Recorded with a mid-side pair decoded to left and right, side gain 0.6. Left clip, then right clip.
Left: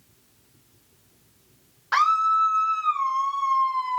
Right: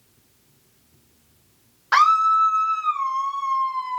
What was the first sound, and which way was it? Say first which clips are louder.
A scream: right 4 dB; 25° right.